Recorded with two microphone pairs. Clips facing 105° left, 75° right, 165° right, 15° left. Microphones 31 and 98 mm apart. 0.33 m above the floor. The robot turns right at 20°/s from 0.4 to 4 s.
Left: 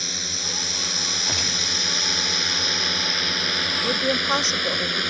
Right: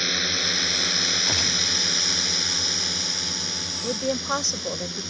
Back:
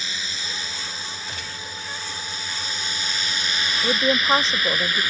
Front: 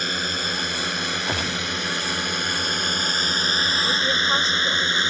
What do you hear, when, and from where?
0.0 s a drone: 15° right; by 5.1 s 80° left
1.3 s a gunshot: 10° left; by 1.8 s 20° left
3.8 s a woman speaking: 175° right